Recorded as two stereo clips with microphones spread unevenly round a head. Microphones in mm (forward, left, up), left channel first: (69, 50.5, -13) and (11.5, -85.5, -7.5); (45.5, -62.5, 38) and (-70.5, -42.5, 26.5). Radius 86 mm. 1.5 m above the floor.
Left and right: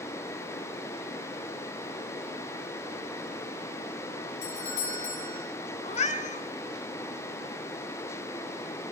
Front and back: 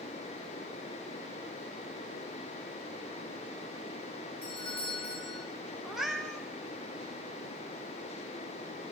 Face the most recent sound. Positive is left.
turn(degrees=75)